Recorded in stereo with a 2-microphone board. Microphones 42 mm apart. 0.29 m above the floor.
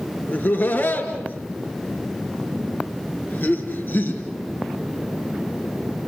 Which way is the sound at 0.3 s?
45° left (ahead or behind).